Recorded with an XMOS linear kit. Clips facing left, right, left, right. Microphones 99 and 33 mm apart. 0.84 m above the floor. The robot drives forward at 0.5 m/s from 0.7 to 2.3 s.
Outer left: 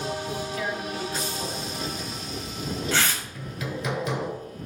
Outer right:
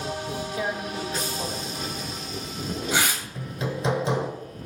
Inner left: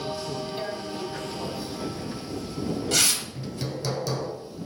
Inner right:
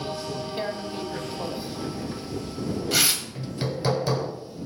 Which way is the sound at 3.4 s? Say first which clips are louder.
Outer right 2 dB, inner right 2 dB; 30° right (ahead or behind).